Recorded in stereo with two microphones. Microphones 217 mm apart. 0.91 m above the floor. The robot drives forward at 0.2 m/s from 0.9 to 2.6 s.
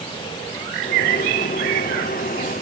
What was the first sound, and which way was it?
Only background noise.